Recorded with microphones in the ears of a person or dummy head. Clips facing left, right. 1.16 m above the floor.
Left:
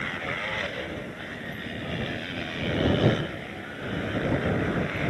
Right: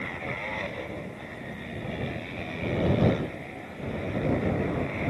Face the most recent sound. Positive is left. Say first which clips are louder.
# left 1 dB
turn(degrees=10)  # may be behind; listen again after turning